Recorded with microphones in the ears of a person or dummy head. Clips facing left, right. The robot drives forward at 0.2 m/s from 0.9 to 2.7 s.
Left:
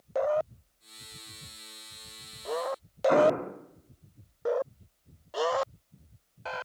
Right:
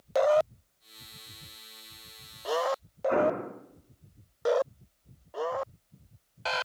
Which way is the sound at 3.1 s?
60° left (ahead or behind).